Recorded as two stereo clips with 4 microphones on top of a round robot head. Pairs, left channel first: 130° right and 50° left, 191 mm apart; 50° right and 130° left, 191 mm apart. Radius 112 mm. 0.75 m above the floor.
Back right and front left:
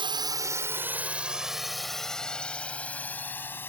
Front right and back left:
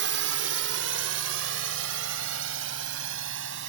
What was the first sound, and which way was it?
A drone, 115° left.